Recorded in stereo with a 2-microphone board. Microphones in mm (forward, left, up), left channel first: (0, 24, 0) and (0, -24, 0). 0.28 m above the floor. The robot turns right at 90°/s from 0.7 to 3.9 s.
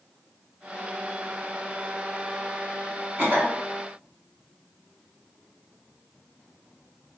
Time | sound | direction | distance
3.2 | a cough | 125° right | 1.8 m